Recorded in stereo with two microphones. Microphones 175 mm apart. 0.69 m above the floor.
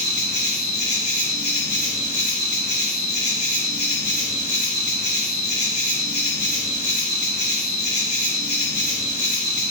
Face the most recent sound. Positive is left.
turn(degrees=45)  # may be behind; listen again after turning